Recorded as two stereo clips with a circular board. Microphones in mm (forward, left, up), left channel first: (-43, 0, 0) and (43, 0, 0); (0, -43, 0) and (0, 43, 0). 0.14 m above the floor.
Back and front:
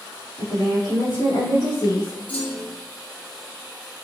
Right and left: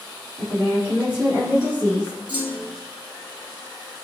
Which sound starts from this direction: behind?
A woman speaking, at 0.4 s.